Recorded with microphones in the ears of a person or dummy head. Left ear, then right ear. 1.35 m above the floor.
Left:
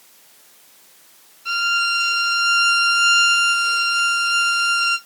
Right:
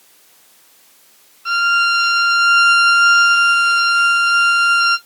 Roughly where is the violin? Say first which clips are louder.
Right 5 dB; right.